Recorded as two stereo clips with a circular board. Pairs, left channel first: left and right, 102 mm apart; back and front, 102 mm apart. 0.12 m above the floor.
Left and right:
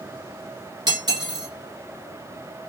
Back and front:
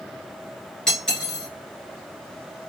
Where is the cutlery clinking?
100° right, 1.1 m.